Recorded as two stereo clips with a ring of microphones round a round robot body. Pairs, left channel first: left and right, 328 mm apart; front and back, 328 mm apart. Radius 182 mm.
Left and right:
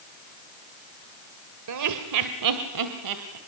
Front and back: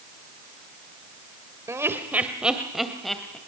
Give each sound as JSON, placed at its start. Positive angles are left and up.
{"t": 1.7, "sound": "laughter", "azimuth_deg": -100, "distance_m": 1.6}